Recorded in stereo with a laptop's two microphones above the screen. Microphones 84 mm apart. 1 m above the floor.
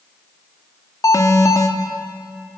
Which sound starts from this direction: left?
An alarm, at 1.0 s.